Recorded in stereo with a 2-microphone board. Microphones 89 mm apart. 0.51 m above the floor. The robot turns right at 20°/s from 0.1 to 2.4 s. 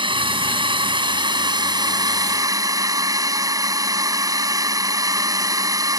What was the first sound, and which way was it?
A drone, 90° right.